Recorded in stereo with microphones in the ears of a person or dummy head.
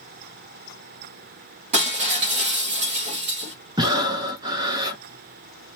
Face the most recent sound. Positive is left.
turn(degrees=-20)  # may be behind; listen again after turning